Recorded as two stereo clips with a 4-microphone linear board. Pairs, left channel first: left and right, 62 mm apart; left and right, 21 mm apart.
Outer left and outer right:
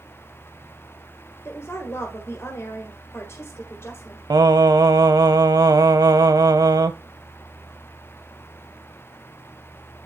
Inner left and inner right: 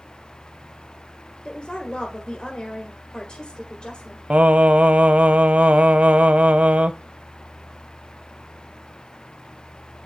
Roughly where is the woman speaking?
Left.